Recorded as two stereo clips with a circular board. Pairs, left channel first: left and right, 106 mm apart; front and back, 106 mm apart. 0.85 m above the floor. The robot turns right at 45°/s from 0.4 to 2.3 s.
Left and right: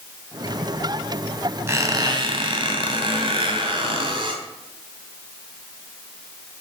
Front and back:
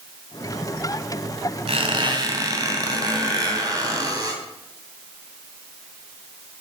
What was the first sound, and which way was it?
A squeak, 155° right.